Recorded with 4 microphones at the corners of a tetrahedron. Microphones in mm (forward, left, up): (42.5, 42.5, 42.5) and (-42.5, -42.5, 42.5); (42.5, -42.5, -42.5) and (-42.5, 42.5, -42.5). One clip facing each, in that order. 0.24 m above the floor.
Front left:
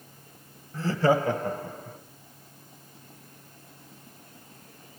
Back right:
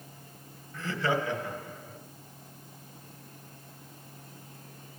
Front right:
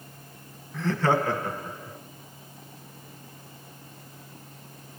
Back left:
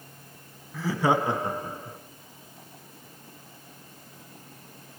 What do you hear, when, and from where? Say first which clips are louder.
0.7 s laughter: front left 7 dB, even; 50° left, 1.1 m; by 2.0 s 80° left, 1.9 m